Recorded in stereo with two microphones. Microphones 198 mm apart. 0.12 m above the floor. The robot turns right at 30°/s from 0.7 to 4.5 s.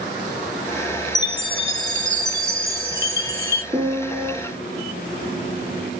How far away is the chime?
About 0.5 m.